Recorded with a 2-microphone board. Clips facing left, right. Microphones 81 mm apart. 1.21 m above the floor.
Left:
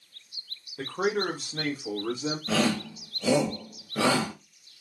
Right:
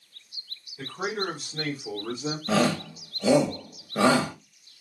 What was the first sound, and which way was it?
A man speaking, 70° left (ahead or behind).